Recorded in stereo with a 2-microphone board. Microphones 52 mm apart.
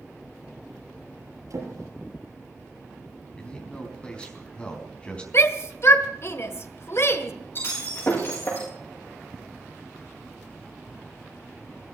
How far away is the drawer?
About 6 m.